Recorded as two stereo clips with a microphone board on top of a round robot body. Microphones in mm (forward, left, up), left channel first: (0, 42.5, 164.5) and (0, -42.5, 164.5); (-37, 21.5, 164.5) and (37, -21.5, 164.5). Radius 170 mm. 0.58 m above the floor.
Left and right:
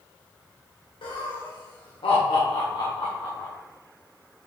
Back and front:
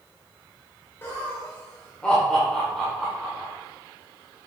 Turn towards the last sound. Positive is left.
turn(degrees=55)